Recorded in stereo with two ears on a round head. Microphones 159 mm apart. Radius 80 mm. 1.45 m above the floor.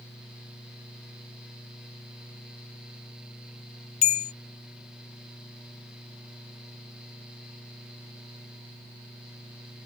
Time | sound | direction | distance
4.0 | a bell | 40° left (ahead or behind) | ?